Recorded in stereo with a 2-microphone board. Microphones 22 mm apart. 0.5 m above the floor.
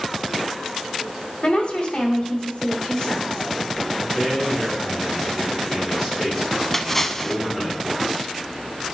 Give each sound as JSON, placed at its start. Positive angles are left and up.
{"t": 1.4, "sound": "a woman speaking", "side_deg": 55, "distance_m": 2.5}
{"t": 4.0, "sound": "a man speaking", "side_deg": 20, "distance_m": 5.5}
{"t": 6.7, "sound": "a splash", "side_deg": 15, "distance_m": 0.6}